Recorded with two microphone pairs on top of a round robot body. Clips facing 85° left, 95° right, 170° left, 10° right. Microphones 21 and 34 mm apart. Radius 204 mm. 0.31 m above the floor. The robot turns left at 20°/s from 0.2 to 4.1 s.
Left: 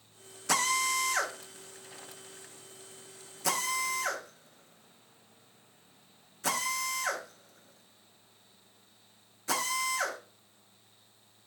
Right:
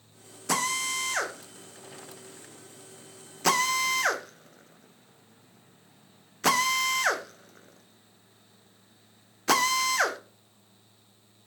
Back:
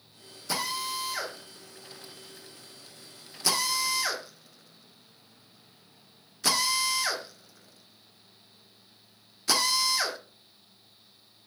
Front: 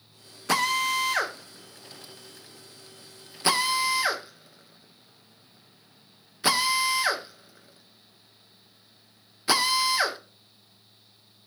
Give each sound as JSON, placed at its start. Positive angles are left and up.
{"t": 0.5, "sound": "a drill", "azimuth_deg": -5, "distance_m": 1.8}